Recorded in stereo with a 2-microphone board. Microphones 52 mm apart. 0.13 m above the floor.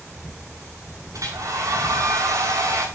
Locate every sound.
1.1 s a hair dryer: 70° right (ahead or behind), 6.5 m